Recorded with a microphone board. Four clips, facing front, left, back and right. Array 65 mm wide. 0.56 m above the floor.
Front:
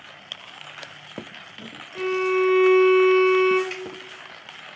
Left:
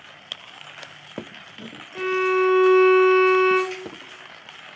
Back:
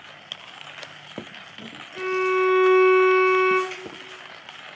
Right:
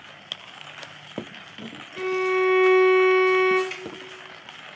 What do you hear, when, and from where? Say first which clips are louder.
1.9 s a violin: left 2 dB, even; 65° left, 1.0 m
3.7 s dripping: left 3 dB, front 3 dB; 30° right, 1.1 m